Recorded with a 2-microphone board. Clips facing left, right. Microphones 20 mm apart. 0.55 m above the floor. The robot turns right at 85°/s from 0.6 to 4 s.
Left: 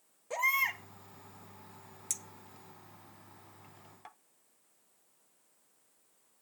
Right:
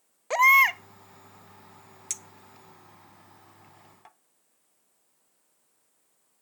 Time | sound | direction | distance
0.3 | a baby crying | 80° right | 0.6 m
2.1 | a clink | 25° right (ahead or behind) | 0.8 m